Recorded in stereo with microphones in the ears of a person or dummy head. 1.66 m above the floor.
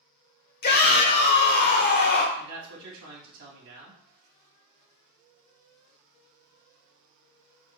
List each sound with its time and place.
0.6 s a shout: 45° left (ahead or behind), 0.9 m
2.4 s a man speaking: 70° right (ahead or behind), 1.4 m